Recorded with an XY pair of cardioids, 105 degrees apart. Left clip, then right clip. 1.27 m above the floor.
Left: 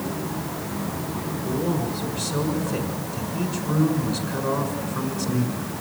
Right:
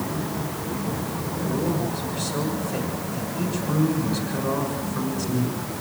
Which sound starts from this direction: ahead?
A man speaking, at 1.4 s.